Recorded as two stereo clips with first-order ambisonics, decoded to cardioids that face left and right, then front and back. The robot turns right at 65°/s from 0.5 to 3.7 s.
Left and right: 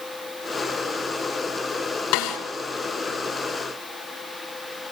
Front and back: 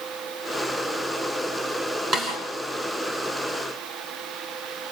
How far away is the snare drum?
About 5.5 m.